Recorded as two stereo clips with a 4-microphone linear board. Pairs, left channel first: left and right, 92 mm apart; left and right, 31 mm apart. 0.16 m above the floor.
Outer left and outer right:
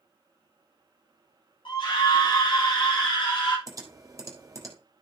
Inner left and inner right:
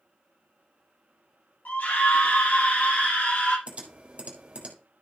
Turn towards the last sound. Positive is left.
turn(degrees=-35)  # may be behind; listen again after turning